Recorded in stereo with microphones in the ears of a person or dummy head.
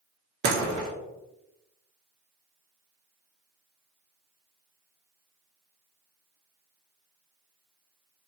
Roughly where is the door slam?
Right.